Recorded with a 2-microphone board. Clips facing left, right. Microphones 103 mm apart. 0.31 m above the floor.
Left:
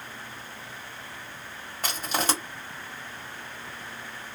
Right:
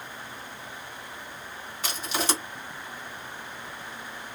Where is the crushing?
50° left (ahead or behind), 1.5 m.